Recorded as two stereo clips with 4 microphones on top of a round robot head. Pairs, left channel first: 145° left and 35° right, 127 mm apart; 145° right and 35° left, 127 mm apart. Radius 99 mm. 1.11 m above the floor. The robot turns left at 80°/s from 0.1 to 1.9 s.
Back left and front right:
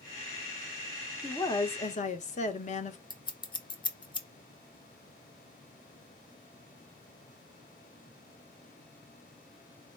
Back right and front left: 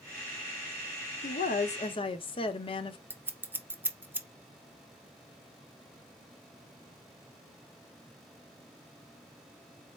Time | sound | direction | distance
1.2 | a woman speaking | 135° right | 0.8 m
3.1 | scissors | 105° left | 0.8 m